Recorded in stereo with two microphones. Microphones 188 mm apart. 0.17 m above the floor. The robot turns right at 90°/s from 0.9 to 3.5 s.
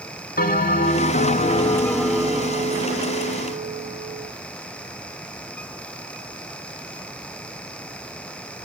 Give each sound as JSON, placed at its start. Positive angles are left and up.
{"t": 0.4, "sound": "a bell", "azimuth_deg": 80, "distance_m": 0.8}